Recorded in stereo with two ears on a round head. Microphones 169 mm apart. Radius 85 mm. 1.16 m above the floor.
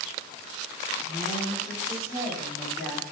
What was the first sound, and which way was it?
A woman speaking, 40° left (ahead or behind).